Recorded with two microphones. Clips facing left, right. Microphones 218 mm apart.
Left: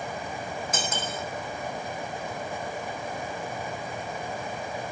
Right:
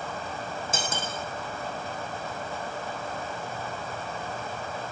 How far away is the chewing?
No chewing in this recording.